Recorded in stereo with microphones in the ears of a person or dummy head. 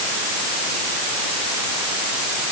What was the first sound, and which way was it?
Only background noise.